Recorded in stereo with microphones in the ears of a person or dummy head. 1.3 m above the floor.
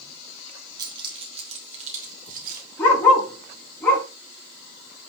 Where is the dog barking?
15° left (ahead or behind), 5 m.